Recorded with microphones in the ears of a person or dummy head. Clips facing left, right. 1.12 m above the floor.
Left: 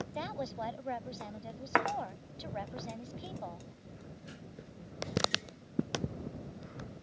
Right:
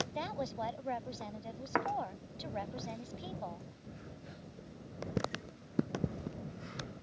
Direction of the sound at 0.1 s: Centre (ahead or behind).